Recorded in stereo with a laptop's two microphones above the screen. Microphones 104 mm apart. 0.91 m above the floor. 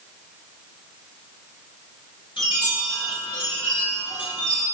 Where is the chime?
50° left (ahead or behind), 0.9 m.